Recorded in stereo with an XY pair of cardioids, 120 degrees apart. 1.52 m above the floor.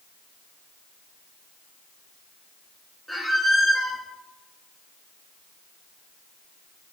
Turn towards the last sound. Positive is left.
turn(degrees=-5)